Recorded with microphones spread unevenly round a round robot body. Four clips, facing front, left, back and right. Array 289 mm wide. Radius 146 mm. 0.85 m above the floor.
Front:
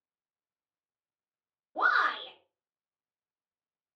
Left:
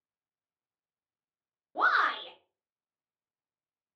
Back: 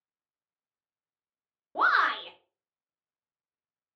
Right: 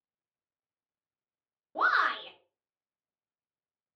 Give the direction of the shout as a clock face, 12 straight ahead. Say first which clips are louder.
Even, back 2 dB; 6 o'clock.